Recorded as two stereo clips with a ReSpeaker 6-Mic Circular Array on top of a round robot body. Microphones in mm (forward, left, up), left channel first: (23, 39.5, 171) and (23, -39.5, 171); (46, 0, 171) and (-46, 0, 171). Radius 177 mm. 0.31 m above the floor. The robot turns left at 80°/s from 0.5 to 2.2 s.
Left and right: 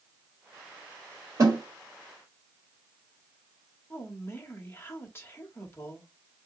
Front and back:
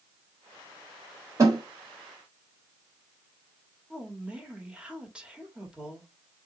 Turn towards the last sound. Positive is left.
turn(degrees=110)